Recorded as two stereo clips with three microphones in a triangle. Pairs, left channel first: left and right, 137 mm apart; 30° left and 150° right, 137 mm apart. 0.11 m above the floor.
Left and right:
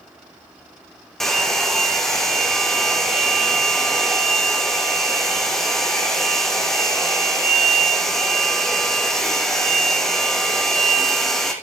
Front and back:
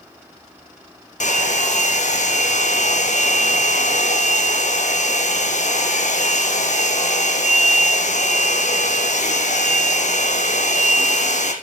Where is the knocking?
No knocking in this recording.